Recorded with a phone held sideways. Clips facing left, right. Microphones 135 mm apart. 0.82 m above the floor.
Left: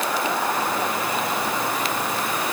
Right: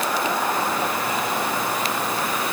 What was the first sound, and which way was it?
Only background noise.